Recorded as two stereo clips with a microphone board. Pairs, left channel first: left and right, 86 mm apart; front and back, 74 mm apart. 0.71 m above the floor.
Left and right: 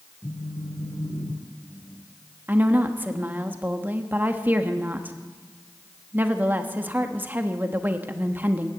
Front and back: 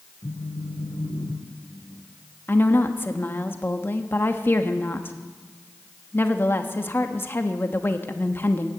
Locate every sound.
0.2 s a phone buzzing: 40° left, 2.5 m
2.5 s a woman speaking: 35° right, 1.1 m